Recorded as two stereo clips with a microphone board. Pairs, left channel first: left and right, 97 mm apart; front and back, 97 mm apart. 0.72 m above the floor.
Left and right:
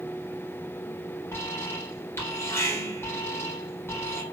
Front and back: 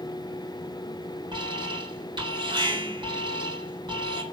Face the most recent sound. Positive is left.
turn(degrees=155)